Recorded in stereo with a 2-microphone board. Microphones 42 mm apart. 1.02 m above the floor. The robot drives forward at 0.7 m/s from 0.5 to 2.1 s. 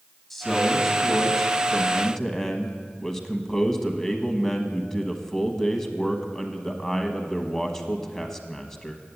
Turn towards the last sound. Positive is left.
turn(degrees=15)  # may be behind; listen again after turning